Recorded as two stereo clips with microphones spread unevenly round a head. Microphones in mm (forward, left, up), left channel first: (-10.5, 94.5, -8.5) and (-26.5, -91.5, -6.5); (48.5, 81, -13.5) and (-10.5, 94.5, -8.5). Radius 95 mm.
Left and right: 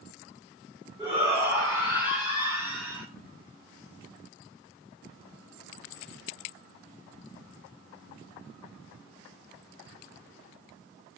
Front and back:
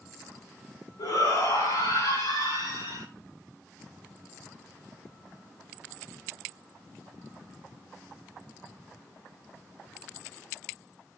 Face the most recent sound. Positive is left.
turn(degrees=-15)